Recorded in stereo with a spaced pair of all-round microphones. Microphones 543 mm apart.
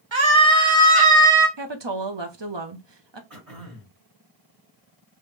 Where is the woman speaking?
50° right (ahead or behind), 0.8 m.